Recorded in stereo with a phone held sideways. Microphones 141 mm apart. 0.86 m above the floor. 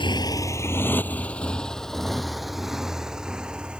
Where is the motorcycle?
35° left (ahead or behind); by 3.8 s 5° right (ahead or behind).